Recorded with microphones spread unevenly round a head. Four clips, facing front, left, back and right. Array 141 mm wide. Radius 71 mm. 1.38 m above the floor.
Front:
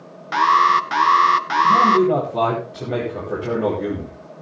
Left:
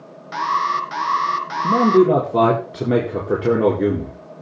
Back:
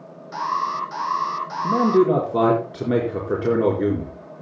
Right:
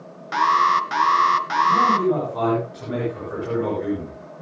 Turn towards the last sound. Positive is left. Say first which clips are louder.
# left 6 dB, front 1 dB
turn(degrees=110)